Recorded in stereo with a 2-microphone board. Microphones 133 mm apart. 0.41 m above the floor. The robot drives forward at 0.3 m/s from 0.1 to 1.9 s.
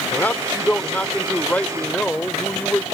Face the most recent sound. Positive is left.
turn(degrees=10)  # may be behind; listen again after turning